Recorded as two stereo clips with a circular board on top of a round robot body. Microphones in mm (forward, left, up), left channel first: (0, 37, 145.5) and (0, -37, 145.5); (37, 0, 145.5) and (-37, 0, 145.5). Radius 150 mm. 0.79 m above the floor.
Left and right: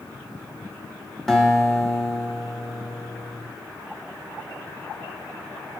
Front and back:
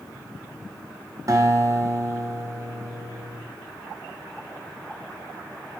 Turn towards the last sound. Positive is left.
turn(degrees=175)